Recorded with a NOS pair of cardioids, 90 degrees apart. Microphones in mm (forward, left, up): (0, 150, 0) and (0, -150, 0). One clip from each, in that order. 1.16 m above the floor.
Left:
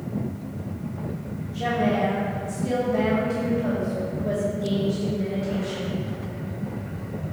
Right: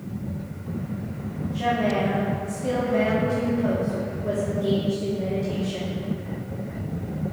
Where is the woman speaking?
20° right, 2.5 m.